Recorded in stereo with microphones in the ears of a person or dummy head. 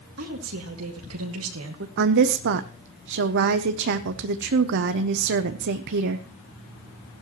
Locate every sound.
0.2 s a woman speaking: 85° right, 2.5 m; by 1.9 s 75° right (ahead or behind), 1.4 m
2.0 s a woman speaking: 65° right (ahead or behind), 0.7 m